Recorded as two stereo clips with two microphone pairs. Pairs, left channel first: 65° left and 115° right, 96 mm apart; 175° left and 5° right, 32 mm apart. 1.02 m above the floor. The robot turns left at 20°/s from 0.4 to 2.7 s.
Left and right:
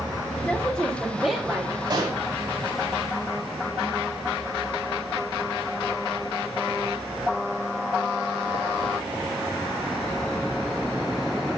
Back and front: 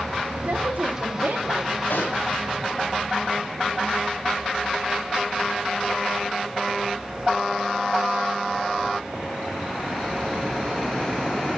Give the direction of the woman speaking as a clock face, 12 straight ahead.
12 o'clock.